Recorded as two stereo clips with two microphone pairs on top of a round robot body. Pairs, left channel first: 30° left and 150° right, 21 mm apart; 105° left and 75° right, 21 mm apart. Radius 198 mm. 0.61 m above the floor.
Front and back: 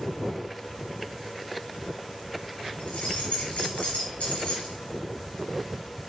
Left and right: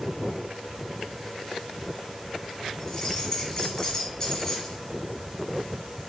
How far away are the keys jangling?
About 1.6 m.